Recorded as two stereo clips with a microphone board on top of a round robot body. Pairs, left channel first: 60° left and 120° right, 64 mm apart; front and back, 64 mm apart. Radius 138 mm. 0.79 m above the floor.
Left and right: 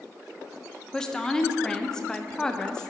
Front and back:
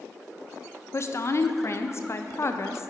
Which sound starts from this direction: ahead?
A woman speaking, at 0.9 s.